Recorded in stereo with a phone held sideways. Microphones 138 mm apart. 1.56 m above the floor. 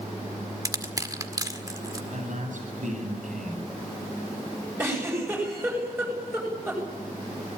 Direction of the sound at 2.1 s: 65° right (ahead or behind).